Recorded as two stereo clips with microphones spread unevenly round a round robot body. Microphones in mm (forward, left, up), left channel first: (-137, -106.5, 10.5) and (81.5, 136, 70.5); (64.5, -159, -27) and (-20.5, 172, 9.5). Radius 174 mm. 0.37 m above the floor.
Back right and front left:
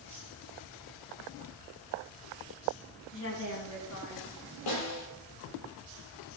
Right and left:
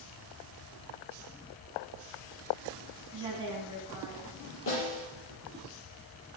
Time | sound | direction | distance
3.1 | a woman speaking | straight behind | 2.5 m
4.7 | a snare drum | 130° right | 6 m